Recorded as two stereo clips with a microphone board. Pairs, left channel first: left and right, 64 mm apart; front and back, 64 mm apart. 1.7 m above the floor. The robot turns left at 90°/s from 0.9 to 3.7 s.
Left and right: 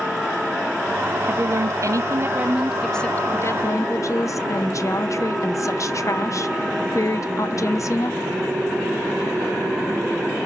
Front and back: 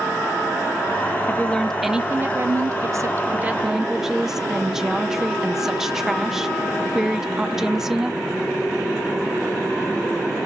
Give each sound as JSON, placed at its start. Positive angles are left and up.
{"t": 1.3, "sound": "a woman speaking", "azimuth_deg": -40, "distance_m": 0.8}